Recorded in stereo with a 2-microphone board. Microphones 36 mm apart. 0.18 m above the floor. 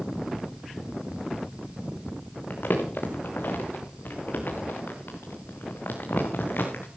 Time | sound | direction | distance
2.5 | crumpling | 70° left (ahead or behind) | 3.5 m